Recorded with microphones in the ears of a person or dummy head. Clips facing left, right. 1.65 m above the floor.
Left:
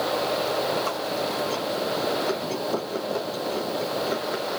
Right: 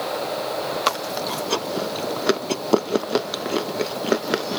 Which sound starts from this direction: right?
Chewing, at 0.9 s.